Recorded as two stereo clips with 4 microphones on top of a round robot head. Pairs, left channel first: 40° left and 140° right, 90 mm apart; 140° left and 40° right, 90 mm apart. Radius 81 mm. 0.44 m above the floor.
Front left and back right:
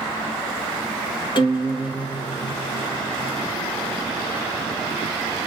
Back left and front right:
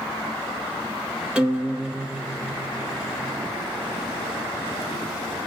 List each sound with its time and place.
1.4 s a guitar: 35° left, 1.0 m